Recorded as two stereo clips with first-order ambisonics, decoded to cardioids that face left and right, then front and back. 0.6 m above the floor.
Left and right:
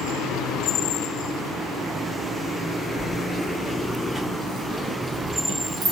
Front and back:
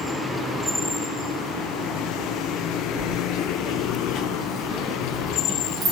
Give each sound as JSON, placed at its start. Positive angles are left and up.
{"t": 3.0, "sound": "keys jangling", "azimuth_deg": 10, "distance_m": 1.4}